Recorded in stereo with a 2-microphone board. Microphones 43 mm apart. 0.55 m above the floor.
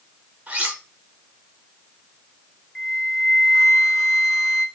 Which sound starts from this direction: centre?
A flute, at 2.8 s.